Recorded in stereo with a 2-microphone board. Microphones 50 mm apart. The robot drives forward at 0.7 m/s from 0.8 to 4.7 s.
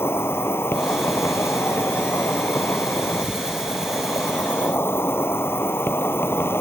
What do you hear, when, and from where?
0.0 s an insect: 55° left (ahead or behind)